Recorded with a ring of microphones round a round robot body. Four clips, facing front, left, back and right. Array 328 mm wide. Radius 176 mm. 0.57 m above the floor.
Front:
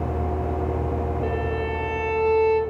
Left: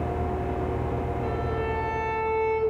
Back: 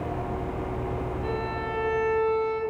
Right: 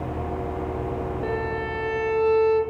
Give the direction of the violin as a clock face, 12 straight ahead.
1 o'clock.